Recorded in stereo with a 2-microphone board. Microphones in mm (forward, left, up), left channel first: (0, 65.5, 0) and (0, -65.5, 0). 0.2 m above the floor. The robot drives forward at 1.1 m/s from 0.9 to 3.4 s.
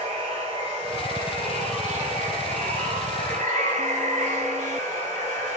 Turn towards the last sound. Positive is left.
turn(degrees=-75)  # may be behind; listen again after turning